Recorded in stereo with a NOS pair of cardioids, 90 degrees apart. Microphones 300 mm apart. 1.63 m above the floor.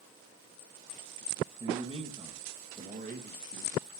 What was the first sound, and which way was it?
A man speaking, 15° right.